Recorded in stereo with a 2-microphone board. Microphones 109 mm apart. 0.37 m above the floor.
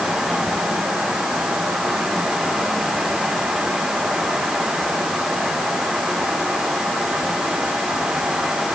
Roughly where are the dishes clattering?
I don't hear dishes clattering.